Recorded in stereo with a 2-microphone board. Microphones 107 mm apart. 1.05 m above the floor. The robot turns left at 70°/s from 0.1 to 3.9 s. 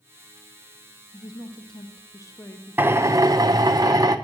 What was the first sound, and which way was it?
A woman speaking, 125° left.